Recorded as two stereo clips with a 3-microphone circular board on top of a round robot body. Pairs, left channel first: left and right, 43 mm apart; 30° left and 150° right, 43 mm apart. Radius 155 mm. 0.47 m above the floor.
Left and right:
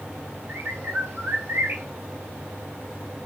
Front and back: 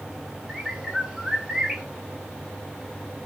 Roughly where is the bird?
Right.